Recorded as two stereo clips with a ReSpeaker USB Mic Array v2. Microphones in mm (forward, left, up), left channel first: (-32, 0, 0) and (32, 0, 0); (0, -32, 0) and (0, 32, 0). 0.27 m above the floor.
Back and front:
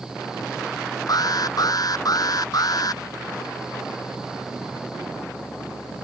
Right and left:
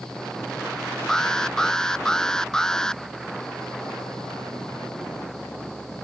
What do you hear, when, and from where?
1.1 s an alarm: 170° right